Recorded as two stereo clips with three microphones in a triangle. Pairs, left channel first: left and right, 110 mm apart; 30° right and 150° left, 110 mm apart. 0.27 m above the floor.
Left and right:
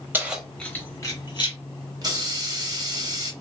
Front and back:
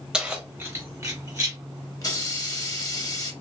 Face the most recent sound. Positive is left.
turn(degrees=-65)